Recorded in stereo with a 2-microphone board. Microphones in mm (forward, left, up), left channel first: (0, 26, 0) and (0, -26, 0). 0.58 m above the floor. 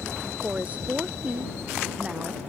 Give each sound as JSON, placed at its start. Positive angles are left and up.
{"t": 0.4, "sound": "a woman speaking", "side_deg": -25}